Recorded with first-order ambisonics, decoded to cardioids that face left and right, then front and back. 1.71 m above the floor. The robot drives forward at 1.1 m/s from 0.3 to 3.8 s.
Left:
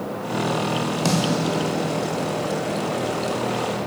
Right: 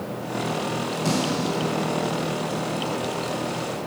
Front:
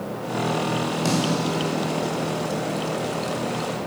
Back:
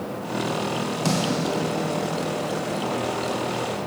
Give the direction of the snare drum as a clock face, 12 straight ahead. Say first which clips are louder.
Left 2 dB, back 1 dB; 9 o'clock.